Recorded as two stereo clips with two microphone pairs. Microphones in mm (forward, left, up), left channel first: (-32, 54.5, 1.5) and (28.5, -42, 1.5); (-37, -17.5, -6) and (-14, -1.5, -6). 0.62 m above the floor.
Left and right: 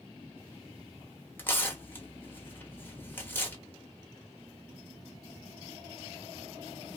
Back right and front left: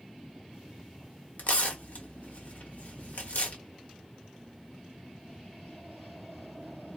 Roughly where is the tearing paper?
Behind.